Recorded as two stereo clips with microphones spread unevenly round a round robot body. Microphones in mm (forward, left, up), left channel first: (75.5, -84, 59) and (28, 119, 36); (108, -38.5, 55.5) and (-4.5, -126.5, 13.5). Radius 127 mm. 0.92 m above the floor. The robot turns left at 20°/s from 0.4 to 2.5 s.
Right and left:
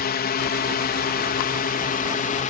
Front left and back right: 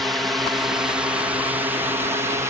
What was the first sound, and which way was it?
A drone, 75° right.